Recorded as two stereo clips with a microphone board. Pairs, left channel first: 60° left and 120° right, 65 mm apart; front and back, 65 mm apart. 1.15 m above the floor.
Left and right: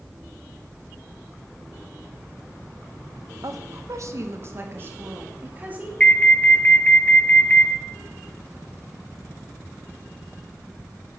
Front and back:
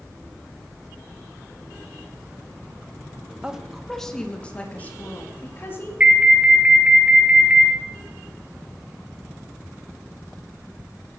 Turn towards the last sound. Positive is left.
turn(degrees=120)